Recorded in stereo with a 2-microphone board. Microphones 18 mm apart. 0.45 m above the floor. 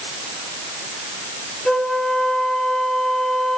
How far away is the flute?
About 3.5 m.